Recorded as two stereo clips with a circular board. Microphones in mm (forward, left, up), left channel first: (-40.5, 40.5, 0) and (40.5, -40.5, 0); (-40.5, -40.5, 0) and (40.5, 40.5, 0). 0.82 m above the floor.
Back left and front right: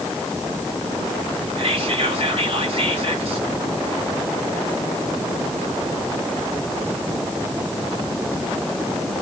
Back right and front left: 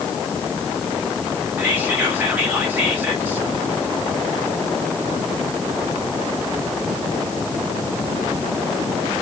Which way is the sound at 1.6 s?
25° right.